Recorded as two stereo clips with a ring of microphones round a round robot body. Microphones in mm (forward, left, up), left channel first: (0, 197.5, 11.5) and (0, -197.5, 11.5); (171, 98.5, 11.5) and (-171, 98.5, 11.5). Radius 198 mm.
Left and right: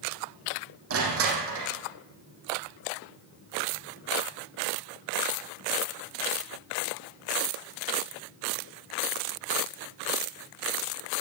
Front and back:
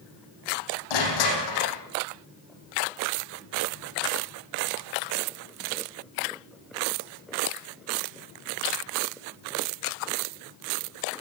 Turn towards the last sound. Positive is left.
turn(degrees=-35)